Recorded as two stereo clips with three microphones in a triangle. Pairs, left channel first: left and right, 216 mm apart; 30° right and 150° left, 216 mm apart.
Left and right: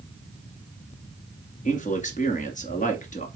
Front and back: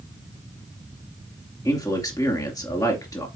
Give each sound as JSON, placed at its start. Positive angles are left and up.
{"t": 1.6, "sound": "a man speaking", "azimuth_deg": 40, "distance_m": 2.5}